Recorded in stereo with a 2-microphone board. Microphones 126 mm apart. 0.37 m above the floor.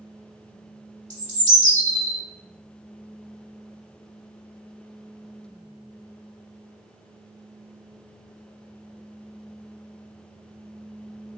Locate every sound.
1.1 s a bird: 80° right, 0.9 m